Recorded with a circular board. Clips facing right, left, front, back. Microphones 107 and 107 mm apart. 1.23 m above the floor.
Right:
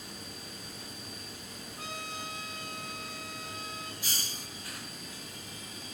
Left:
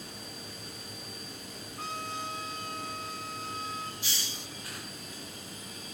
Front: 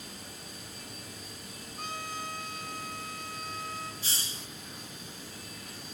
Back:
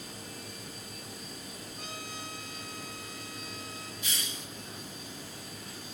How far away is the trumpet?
About 7.5 m.